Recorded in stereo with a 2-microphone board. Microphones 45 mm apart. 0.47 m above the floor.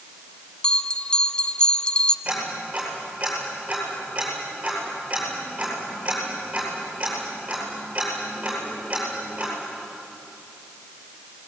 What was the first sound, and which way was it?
A bell, 25° left (ahead or behind).